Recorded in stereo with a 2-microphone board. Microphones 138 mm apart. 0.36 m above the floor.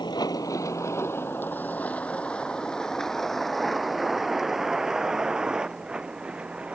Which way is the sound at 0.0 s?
30° left (ahead or behind).